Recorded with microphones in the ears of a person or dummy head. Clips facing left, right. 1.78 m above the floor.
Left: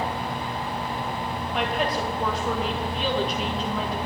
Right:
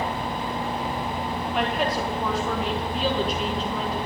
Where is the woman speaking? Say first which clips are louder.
Even; centre (ahead or behind), 2 m.